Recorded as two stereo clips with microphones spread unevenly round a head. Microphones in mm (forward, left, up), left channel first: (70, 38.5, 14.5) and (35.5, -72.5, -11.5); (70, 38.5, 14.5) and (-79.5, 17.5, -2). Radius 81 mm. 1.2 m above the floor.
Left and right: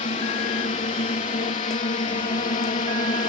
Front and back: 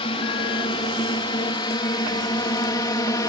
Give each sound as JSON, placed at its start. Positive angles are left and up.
{"t": 0.0, "sound": "a drone", "azimuth_deg": 60}